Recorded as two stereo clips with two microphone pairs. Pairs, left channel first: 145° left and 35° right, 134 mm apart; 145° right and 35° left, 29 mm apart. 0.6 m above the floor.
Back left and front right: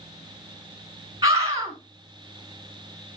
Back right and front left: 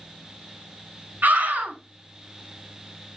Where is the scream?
30° left, 5.5 m.